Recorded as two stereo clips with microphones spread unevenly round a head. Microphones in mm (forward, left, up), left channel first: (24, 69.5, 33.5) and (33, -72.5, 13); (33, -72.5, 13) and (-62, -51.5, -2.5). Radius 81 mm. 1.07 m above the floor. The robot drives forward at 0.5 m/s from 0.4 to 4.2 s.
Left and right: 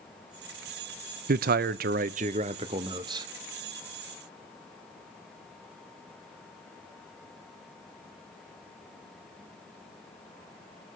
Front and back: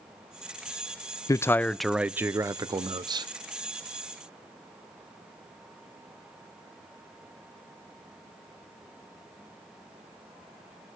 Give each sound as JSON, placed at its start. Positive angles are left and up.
{"t": 1.3, "sound": "a man speaking", "azimuth_deg": -70, "distance_m": 0.5}